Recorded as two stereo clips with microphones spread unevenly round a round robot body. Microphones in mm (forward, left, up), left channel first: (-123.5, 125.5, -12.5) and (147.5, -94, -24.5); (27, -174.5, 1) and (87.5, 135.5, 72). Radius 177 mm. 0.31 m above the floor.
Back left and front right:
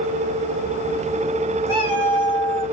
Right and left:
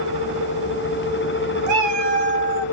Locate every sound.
1.7 s a cat meowing: 65° left, 2 m